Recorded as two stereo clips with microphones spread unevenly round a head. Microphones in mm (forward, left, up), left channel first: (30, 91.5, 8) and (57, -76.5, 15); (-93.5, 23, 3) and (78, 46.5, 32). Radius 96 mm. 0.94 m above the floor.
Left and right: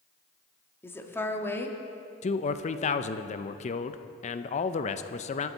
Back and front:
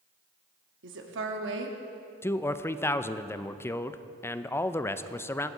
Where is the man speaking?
125° left, 0.5 m.